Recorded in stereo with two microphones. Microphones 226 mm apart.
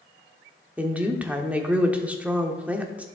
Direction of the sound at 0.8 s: 5° right (ahead or behind).